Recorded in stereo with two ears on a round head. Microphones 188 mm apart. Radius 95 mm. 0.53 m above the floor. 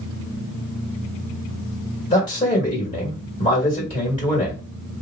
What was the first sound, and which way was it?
A man speaking, 20° left (ahead or behind).